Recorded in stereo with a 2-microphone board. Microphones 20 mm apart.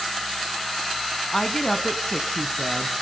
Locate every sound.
1.3 s a woman speaking: 25° left (ahead or behind), 1.1 m